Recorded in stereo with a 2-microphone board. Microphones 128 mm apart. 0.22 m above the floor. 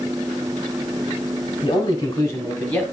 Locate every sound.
1.6 s a man speaking: 35° left (ahead or behind), 1.9 m; by 2.8 s 10° left (ahead or behind), 1.9 m